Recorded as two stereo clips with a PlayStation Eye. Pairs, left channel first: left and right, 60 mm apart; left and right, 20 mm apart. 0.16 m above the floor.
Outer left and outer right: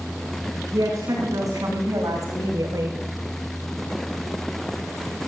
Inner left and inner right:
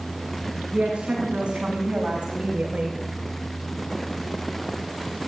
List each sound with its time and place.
0.7 s a woman speaking: 75° right (ahead or behind), 9 m; by 3.0 s 85° right, 10 m